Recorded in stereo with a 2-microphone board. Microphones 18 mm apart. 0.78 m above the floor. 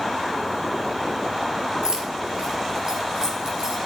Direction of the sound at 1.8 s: 45° right (ahead or behind).